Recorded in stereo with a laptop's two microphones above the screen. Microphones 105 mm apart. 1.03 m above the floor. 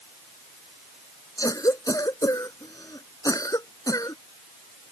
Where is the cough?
35° left (ahead or behind).